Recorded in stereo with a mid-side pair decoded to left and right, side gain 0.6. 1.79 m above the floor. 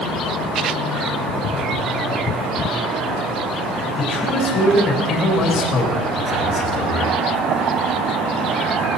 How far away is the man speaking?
About 4 m.